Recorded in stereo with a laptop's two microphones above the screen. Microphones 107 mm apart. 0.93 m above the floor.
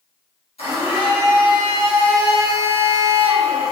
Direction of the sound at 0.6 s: 65° left (ahead or behind).